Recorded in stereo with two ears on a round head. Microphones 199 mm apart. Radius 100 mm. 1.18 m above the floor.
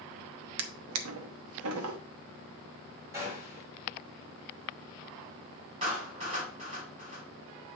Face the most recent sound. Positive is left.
turn(degrees=-25)  # may be behind; listen again after turning